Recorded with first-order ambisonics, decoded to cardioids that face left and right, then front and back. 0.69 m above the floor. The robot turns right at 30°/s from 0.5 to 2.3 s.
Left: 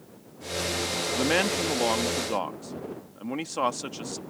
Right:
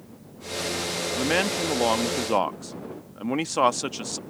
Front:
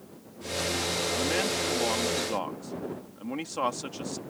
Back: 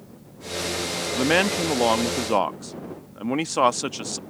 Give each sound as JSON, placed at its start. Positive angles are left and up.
{"t": 1.1, "sound": "a man speaking", "azimuth_deg": 175}